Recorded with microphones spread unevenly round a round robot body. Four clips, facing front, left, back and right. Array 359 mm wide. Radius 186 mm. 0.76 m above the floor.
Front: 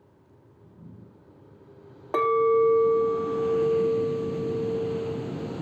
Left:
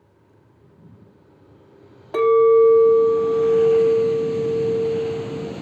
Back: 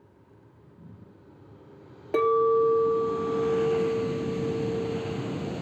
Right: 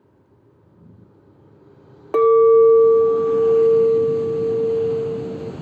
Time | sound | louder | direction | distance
2.1 | a clink | right 2 dB, front 1 dB | 115° right | 0.7 m